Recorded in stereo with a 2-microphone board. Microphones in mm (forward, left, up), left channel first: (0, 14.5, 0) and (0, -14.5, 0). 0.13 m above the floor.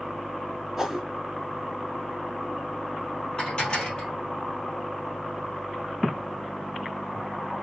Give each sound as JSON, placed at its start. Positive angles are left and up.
{"t": 0.8, "sound": "a whoosh", "side_deg": -10, "distance_m": 0.8}
{"t": 3.4, "sound": "dishes clattering", "side_deg": 30, "distance_m": 2.0}